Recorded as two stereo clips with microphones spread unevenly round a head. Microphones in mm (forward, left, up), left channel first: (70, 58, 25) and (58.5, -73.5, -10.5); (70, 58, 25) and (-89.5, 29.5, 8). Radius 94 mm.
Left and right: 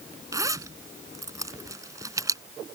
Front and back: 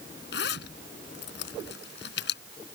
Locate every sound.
0.3 s a zipper: 30° right